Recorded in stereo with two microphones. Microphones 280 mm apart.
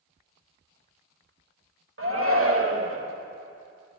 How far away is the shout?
About 2.5 m.